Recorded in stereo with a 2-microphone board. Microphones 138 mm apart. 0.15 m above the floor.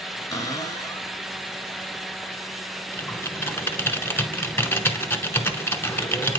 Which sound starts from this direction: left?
A cupboard door, at 0.3 s.